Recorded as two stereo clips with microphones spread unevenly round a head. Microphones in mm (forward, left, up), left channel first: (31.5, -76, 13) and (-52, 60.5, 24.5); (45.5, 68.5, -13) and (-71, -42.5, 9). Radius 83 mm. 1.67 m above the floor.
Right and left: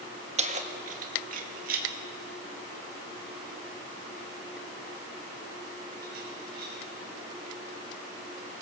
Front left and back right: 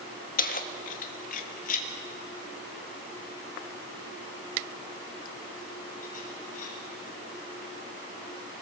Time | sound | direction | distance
0.4 | keys jangling | 75° left | 1.4 m